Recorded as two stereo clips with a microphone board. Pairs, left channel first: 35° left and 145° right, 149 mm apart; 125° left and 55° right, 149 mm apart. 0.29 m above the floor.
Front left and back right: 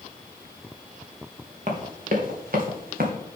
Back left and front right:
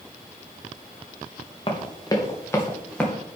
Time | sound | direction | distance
1.7 | running footsteps | straight behind | 3 m